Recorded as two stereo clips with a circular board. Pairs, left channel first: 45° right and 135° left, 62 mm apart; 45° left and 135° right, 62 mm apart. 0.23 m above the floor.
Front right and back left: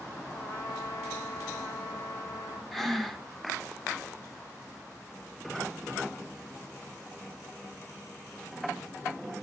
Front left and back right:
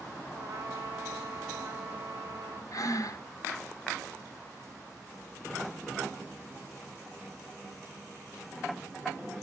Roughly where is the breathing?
Ahead left.